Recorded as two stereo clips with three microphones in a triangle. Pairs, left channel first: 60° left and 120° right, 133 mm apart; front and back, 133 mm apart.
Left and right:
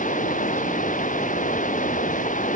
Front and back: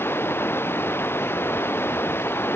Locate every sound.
0.0 s running water: 75° left